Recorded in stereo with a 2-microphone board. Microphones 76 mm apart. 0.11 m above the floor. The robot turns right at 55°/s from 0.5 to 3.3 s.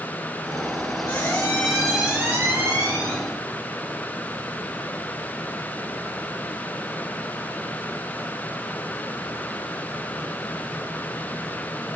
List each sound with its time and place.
1.1 s a squeak: 140° left, 3.5 m; by 3.2 s 105° right, 3.5 m